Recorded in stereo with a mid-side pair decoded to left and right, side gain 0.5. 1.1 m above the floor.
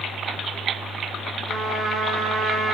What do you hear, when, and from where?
1.5 s a trumpet: 50° right, 8 m